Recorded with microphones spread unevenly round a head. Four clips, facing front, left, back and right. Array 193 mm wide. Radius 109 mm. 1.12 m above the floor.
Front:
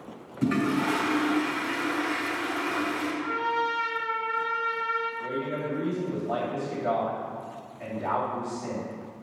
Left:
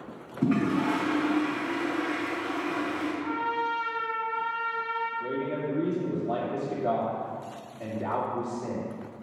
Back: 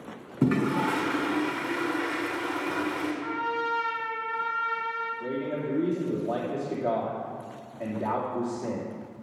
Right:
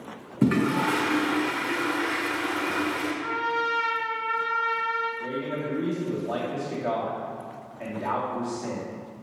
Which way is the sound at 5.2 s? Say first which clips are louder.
Even, even; straight behind.